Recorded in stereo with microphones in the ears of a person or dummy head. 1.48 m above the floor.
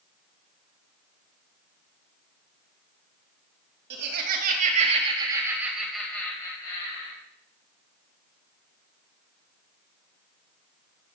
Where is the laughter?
60° right (ahead or behind), 3 m; by 7.2 s 35° left (ahead or behind), 3.5 m.